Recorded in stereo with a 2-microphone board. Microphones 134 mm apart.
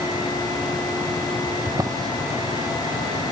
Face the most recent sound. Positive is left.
turn(degrees=-25)  # may be behind; listen again after turning